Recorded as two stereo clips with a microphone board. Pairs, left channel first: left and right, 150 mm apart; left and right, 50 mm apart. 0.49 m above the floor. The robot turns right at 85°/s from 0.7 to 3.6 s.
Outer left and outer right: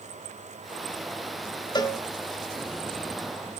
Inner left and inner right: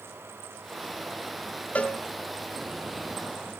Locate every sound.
1.8 s a cowbell: 30° left (ahead or behind), 1.2 m; by 2.0 s 10° left (ahead or behind), 1.2 m